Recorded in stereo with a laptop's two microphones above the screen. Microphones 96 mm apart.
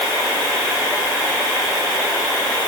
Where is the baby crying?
I don't hear a baby crying.